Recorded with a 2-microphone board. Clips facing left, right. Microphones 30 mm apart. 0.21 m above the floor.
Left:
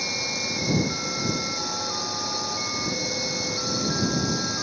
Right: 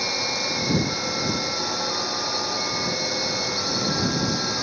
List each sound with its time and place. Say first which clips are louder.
0.0 s a drone: right 3 dB; 20° right (ahead or behind)